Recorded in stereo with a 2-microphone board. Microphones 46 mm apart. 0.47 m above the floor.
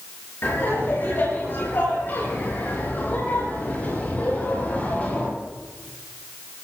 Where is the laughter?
55° left (ahead or behind), 7.5 m; by 5.3 s 30° left (ahead or behind), 9 m.